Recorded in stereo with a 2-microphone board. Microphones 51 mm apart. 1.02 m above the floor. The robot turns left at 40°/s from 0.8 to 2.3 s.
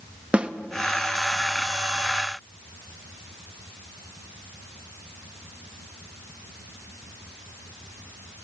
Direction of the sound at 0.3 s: 25° right (ahead or behind).